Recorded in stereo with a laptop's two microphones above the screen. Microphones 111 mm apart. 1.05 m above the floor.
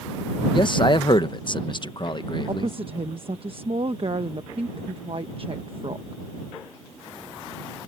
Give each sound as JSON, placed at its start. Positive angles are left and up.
{"t": 0.5, "sound": "a man speaking", "side_deg": 40}
{"t": 2.5, "sound": "a woman speaking", "side_deg": -50}